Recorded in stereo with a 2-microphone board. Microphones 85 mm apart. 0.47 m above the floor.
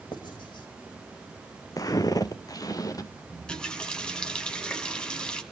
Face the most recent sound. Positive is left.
turn(degrees=10)  # may be behind; listen again after turning